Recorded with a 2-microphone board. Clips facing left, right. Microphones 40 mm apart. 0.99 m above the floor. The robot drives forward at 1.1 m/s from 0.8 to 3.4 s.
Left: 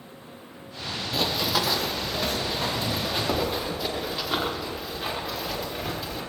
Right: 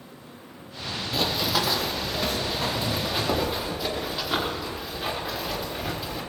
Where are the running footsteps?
Centre (ahead or behind), 1.2 m; by 6.2 s 5° right (ahead or behind), 6.5 m.